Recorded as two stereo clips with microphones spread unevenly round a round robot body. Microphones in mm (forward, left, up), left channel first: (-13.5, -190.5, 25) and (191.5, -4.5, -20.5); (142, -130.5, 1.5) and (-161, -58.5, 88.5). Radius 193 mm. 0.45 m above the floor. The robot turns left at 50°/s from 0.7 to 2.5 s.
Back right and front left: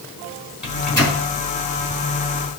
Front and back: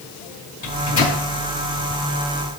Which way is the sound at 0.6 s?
45° right.